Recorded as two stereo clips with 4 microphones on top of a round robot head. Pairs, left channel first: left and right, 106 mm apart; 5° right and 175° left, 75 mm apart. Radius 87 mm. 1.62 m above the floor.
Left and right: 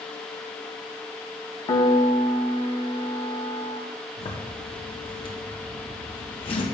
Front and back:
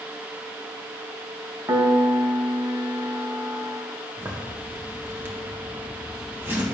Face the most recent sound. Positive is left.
turn(degrees=120)